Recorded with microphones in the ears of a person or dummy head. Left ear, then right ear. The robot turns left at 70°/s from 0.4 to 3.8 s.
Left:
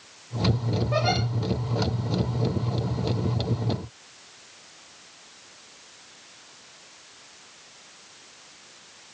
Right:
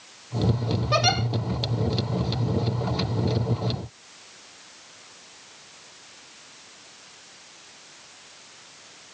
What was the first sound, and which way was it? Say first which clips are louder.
A giggle: right 3 dB; 80° right.